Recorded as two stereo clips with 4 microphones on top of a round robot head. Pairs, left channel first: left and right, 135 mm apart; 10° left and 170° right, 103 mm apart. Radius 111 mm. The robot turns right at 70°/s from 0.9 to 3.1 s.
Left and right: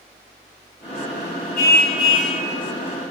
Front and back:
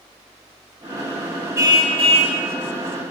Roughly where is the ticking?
No ticking in this recording.